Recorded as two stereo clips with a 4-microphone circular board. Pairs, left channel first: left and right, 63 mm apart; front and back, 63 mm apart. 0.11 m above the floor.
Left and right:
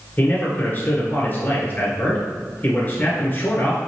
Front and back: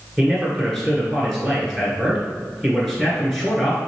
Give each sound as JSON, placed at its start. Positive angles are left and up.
{"t": 0.2, "sound": "a man speaking", "azimuth_deg": 80, "distance_m": 1.6}